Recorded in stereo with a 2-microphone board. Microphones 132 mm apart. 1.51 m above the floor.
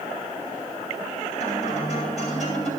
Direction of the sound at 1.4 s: 55° left (ahead or behind).